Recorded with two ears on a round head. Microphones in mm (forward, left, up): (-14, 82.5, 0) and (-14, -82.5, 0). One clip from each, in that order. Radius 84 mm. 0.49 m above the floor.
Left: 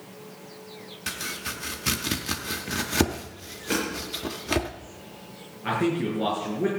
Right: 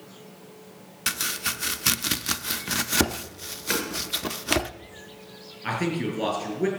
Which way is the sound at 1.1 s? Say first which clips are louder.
Right 5 dB; 40° right (ahead or behind).